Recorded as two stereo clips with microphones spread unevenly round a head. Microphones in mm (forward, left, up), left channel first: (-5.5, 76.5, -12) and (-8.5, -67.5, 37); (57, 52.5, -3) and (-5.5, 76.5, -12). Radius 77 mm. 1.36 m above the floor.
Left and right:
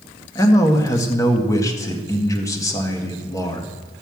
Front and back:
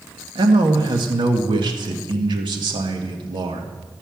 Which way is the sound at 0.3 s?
160° left.